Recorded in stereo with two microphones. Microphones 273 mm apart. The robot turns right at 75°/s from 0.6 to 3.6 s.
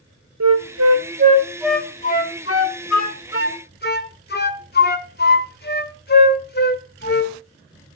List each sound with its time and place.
0.4 s a flute: 80° right, 0.8 m; by 7.4 s 35° left (ahead or behind), 0.8 m